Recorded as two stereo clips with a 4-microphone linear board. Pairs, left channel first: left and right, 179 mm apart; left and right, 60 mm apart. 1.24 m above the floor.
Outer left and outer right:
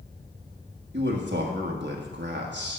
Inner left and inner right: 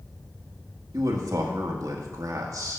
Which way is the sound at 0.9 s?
80° right.